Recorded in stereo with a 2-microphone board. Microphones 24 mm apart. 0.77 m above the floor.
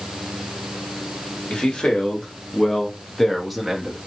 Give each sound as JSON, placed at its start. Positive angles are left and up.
{"t": 1.5, "sound": "a man speaking", "side_deg": 45, "distance_m": 1.6}